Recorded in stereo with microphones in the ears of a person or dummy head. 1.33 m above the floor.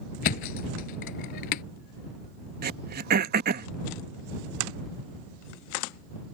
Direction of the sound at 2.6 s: 50° right (ahead or behind).